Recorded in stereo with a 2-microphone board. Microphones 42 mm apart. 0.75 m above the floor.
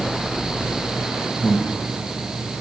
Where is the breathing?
25° left (ahead or behind), 1.8 m.